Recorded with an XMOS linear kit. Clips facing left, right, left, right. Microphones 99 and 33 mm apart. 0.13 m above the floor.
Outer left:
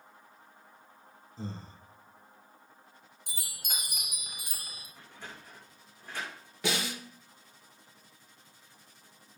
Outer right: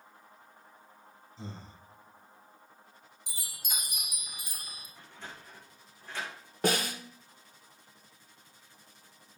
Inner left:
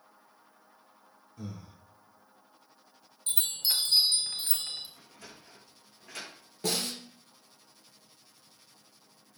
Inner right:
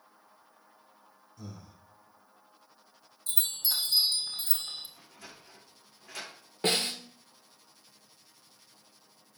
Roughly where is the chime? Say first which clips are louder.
Outer left 1 dB, inner left 2 dB; left.